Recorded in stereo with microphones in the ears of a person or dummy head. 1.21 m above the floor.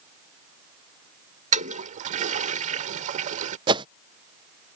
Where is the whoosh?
25° right (ahead or behind).